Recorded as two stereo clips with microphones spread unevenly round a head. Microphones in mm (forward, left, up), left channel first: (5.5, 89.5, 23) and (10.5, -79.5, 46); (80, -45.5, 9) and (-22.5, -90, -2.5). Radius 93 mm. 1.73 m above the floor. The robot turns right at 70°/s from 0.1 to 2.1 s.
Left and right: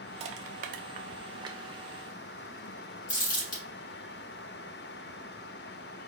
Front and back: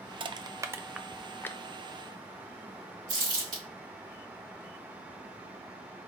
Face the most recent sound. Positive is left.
turn(degrees=135)